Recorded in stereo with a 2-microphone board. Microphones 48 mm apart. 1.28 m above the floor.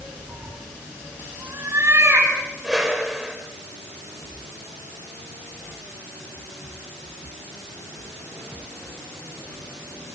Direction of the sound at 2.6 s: 10° right (ahead or behind).